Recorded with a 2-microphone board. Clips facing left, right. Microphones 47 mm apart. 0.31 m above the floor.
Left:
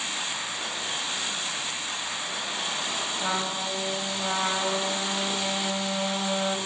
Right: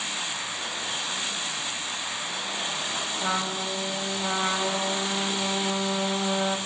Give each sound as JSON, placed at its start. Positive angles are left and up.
{"t": 3.2, "sound": "a trumpet", "side_deg": 0, "distance_m": 0.7}